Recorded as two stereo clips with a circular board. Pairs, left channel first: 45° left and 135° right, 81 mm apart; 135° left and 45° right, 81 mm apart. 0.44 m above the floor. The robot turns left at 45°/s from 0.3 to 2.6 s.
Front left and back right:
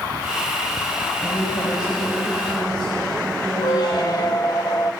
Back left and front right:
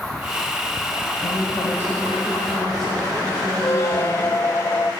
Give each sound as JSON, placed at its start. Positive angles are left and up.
{"t": 1.2, "sound": "a woman speaking", "azimuth_deg": 100, "distance_m": 2.0}
{"t": 3.6, "sound": "a squeak", "azimuth_deg": 85, "distance_m": 0.5}